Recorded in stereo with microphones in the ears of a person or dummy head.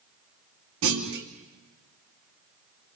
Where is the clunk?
65° right (ahead or behind), 2.5 m.